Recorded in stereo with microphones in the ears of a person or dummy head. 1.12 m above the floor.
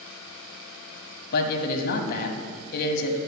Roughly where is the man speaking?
Left.